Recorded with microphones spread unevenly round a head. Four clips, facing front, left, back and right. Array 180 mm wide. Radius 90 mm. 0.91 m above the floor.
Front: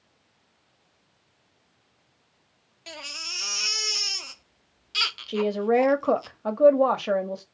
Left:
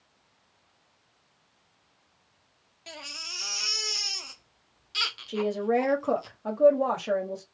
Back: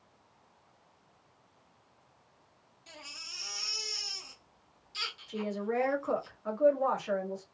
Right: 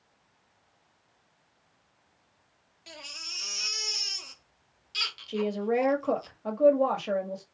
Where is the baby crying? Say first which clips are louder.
Left 3 dB, front 10 dB; 20° left, 1.1 m.